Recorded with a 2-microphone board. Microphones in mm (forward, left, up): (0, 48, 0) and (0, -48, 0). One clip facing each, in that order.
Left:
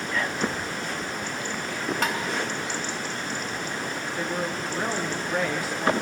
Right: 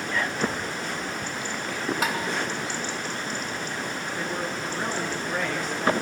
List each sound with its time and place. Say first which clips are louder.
2.0 s tapping: even; 5° right (ahead or behind), 1.4 m
4.2 s a woman speaking: left 2 dB; 10° left (ahead or behind), 2 m